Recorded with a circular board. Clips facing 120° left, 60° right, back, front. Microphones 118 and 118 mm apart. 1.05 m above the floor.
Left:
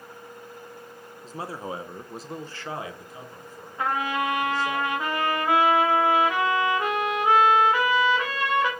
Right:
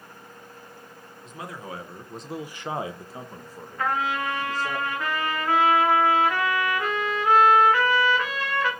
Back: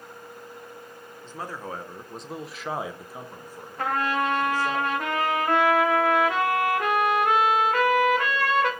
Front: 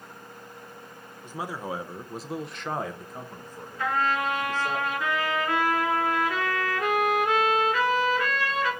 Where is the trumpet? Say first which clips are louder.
Even, back 1 dB; 170° right, 2 m.